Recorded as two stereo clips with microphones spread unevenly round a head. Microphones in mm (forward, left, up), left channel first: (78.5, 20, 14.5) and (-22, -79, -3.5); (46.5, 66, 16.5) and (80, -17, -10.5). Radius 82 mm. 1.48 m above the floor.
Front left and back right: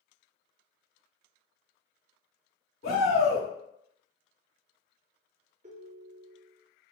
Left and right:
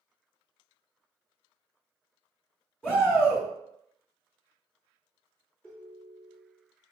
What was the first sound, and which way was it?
A shout, 30° left.